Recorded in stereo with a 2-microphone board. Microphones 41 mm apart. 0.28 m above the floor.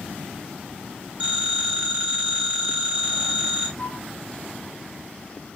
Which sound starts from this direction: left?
A flute, at 3.8 s.